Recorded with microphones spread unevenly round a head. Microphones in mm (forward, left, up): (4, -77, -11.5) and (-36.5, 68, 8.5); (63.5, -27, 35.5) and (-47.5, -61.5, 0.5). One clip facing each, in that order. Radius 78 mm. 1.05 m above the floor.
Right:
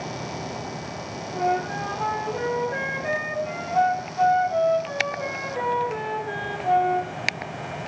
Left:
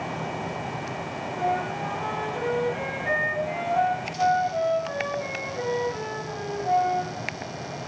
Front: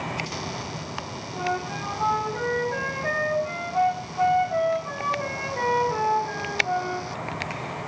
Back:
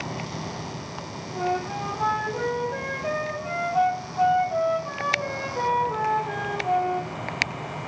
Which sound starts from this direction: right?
A flute, at 1.4 s.